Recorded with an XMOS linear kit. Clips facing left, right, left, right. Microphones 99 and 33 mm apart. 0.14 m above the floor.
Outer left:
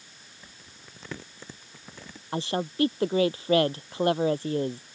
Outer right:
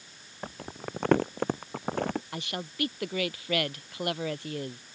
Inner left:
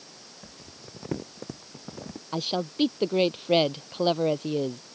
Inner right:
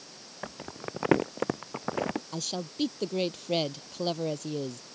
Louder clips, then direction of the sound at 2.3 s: Outer left 8 dB, inner left 6 dB; 30° left (ahead or behind).